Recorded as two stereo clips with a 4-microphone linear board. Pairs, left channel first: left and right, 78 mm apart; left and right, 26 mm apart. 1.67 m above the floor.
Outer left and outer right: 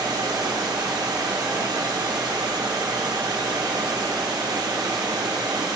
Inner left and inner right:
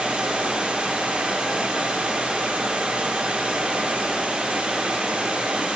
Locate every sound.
0.0 s running water: 60° right (ahead or behind), 0.9 m